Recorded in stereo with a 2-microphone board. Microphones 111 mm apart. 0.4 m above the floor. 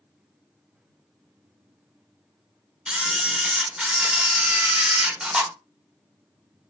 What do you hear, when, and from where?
2.9 s a camera shutter: 10° right (ahead or behind), 0.5 m